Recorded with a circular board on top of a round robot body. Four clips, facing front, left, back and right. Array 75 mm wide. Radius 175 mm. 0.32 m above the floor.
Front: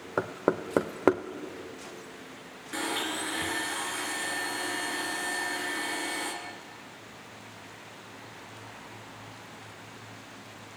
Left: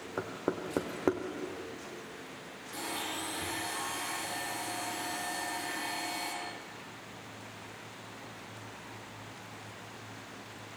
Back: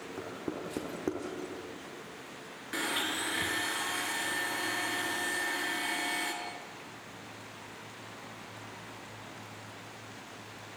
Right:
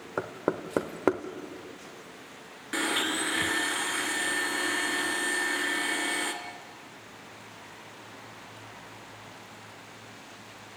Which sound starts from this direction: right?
A blender, at 2.7 s.